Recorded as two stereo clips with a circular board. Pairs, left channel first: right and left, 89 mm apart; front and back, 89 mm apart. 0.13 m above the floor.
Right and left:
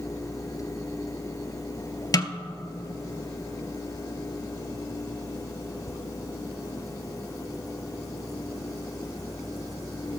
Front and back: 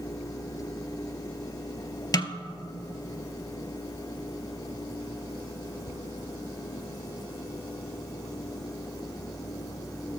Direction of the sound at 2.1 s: 50° right.